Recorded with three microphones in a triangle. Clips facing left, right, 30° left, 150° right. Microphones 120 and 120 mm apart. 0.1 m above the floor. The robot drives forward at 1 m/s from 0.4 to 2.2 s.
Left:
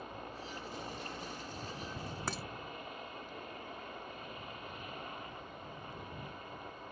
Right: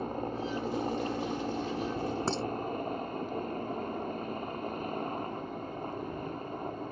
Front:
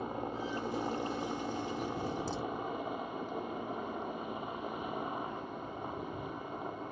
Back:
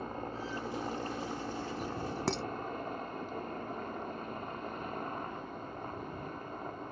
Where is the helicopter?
50° right.